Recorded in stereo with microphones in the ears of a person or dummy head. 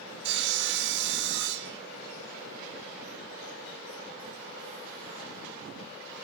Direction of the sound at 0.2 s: 65° right (ahead or behind).